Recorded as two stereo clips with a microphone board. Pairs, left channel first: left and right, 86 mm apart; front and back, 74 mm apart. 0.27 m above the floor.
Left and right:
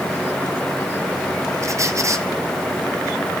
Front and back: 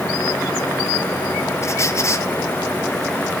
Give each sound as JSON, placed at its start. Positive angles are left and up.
{"t": 1.6, "sound": "a squeak", "azimuth_deg": -45, "distance_m": 1.3}